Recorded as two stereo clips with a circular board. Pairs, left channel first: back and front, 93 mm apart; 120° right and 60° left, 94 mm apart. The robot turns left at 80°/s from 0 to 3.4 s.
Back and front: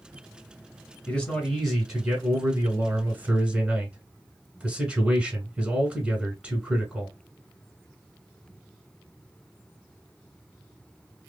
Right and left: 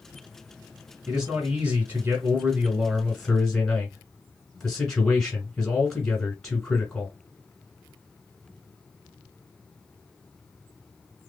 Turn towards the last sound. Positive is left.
turn(degrees=-45)